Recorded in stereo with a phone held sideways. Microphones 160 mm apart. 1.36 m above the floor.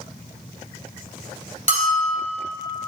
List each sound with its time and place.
1.7 s a bell: 50° right (ahead or behind), 1.9 m